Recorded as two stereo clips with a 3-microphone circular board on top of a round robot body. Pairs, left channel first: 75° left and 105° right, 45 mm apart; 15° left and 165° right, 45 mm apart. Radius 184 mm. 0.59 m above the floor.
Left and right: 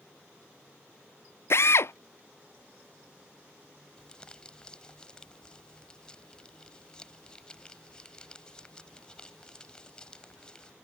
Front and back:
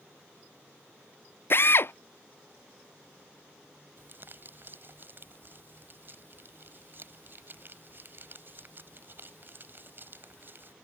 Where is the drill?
50° left.